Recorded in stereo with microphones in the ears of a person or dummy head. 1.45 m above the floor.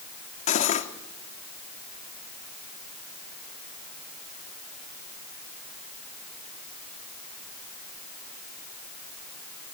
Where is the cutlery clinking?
40° left (ahead or behind), 1.9 m.